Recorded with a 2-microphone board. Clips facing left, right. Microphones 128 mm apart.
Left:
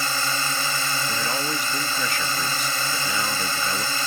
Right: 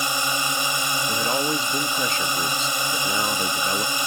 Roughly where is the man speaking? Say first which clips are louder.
Right 6 dB; right.